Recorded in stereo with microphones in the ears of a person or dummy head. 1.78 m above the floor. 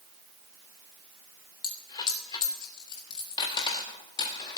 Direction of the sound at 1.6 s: 25° left (ahead or behind).